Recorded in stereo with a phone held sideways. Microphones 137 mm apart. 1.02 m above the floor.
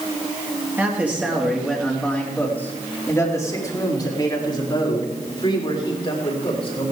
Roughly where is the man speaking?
Centre.